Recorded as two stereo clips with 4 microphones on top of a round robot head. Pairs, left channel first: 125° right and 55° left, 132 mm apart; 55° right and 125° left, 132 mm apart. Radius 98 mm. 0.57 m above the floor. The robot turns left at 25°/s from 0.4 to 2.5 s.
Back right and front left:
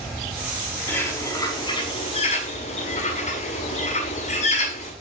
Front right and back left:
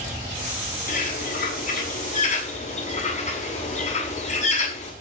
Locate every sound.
0.9 s a bird: 50° right, 6.5 m; by 4.9 s 90° right, 6.5 m